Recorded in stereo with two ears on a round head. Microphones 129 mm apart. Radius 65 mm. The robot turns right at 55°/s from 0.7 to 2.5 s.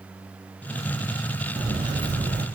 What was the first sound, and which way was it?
Footsteps, 135° right.